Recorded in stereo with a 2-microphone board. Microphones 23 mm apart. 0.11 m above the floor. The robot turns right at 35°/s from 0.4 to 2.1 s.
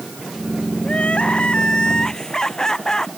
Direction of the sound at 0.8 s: 105° left.